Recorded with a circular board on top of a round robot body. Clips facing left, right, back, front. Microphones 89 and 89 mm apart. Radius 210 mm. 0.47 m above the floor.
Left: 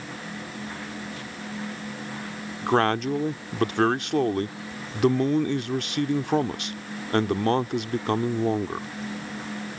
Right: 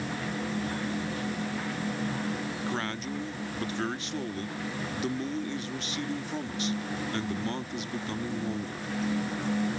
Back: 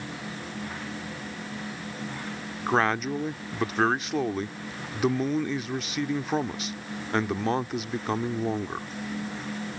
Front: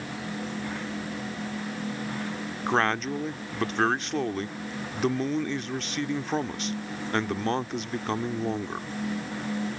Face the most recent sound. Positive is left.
turn(degrees=95)